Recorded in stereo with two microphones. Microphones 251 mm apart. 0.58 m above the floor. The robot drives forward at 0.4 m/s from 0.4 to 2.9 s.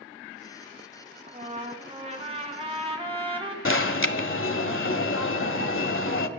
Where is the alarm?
55° left (ahead or behind), 0.7 m.